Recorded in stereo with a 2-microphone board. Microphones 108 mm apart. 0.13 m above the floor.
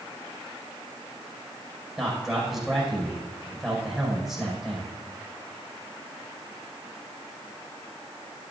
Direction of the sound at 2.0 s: Centre (ahead or behind).